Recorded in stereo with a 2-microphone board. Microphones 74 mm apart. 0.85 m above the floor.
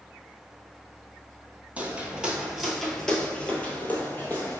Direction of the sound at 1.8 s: 20° right (ahead or behind).